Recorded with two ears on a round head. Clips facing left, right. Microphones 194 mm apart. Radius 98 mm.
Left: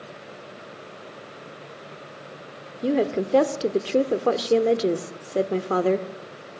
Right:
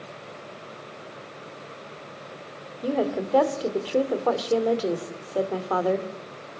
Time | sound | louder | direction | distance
2.8 | a woman speaking | left 3 dB | 30° left (ahead or behind) | 1.4 m